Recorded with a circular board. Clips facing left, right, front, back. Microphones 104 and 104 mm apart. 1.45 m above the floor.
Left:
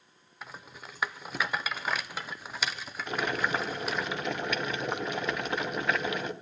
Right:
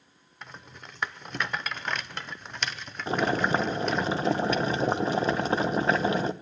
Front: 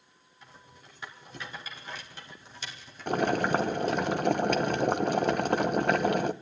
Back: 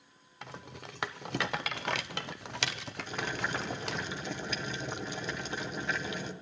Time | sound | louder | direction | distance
0.4 | a rattle | even, back 8 dB | 175° left | 0.8 m
3.1 | boiling | right 5 dB, front 11 dB | 30° right | 0.9 m